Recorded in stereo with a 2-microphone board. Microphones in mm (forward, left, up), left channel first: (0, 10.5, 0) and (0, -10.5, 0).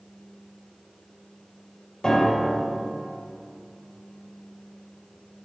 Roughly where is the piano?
Left.